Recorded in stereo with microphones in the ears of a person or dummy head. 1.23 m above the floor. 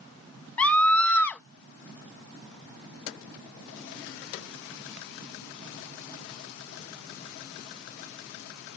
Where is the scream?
15° left (ahead or behind).